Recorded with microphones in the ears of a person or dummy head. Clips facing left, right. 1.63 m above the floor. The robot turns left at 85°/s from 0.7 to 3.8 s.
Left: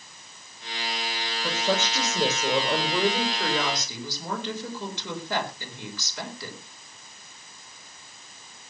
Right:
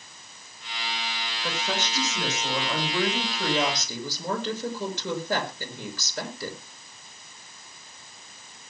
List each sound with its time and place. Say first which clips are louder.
1.4 s a woman speaking: left 4 dB; 165° left, 6 m; by 6.6 s 35° right, 6 m